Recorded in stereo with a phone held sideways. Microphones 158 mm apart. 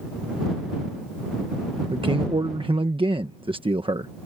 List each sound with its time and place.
1.9 s a man speaking: 35° right (ahead or behind)